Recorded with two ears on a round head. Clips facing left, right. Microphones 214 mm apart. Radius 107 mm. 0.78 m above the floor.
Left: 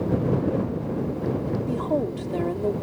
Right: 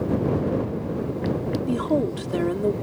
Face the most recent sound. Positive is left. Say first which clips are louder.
# right 4 dB
turn(degrees=-20)  # may be behind; listen again after turning